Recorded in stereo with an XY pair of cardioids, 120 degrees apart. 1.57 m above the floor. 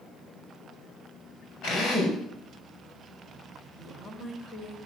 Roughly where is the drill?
Left.